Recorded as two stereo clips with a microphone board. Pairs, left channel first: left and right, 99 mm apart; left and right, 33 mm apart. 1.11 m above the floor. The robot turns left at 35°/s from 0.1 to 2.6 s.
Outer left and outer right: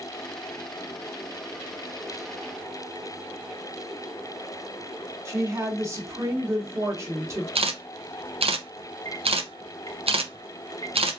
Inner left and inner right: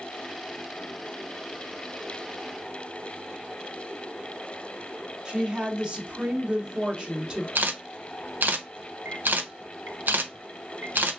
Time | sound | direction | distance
5.2 | a woman speaking | 30° right (ahead or behind) | 1.0 m
7.5 | a camera shutter | 75° right (ahead or behind) | 0.6 m